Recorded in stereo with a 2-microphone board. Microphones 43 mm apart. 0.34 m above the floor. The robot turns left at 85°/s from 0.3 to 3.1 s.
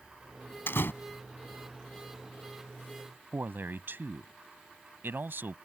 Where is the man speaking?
60° right (ahead or behind).